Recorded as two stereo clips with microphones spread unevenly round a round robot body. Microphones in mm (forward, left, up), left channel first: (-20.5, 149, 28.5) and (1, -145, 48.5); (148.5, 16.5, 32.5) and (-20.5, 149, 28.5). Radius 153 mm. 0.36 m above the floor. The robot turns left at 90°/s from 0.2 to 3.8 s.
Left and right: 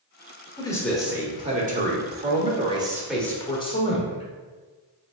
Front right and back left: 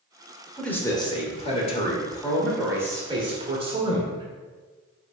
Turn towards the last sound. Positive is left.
turn(degrees=115)